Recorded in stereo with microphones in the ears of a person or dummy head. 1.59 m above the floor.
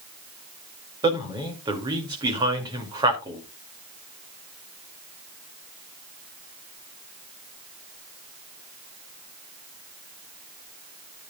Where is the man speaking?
20° right (ahead or behind), 2.5 m.